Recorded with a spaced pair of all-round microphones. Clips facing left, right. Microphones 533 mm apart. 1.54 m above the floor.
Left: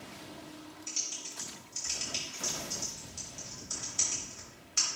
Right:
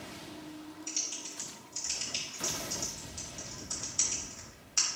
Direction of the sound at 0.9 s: 45° left (ahead or behind).